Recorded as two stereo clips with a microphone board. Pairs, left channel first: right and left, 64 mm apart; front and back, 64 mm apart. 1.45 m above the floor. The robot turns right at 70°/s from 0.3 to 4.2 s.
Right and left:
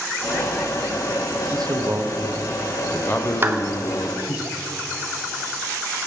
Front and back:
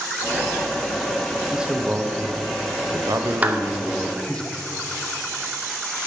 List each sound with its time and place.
1.5 s a man speaking: 95° left, 0.8 m; by 4.4 s 75° right, 0.8 m
3.4 s a clap: 125° left, 0.7 m; by 3.6 s 140° left, 0.7 m